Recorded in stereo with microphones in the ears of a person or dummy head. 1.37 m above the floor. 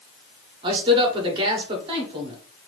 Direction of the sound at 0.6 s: 25° right (ahead or behind).